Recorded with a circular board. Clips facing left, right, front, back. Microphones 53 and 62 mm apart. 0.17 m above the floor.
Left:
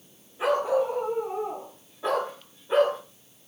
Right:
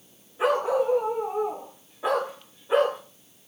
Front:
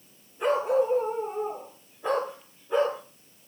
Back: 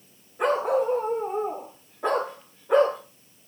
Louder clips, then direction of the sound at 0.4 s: Right 1 dB, back 1 dB; 155° right.